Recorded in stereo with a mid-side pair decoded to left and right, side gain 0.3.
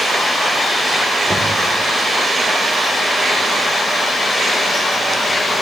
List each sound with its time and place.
1.3 s knocking: 25° right, 3.5 m